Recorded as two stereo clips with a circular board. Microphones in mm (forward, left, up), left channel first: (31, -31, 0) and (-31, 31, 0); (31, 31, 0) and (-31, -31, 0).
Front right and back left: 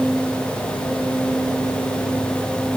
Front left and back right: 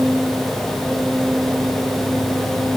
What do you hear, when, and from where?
Only background noise.